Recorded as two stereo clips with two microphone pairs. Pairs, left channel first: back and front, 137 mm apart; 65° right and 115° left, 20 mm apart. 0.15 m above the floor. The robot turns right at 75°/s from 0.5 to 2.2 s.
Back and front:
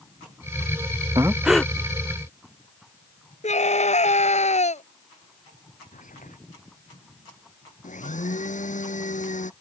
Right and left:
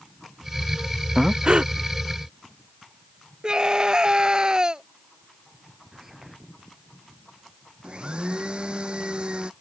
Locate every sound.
1.1 s breathing: 55° left; by 1.7 s 100° left
3.4 s a scream: 165° left
5.9 s whispering: 165° right
7.8 s a blender: 155° left